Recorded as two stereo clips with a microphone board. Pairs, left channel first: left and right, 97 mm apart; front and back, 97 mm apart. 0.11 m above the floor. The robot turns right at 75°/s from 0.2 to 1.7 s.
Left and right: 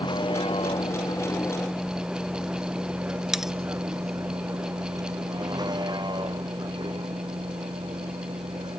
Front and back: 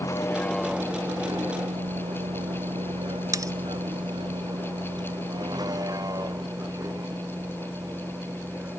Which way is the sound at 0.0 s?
55° left.